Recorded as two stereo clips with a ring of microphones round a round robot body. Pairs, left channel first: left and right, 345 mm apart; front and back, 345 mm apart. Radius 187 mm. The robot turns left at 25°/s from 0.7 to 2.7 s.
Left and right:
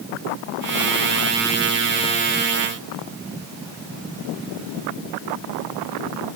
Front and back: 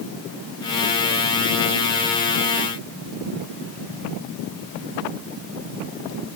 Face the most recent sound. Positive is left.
No sound to turn to.